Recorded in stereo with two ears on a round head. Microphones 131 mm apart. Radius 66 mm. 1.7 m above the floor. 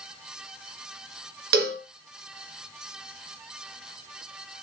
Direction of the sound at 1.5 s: 75° right (ahead or behind).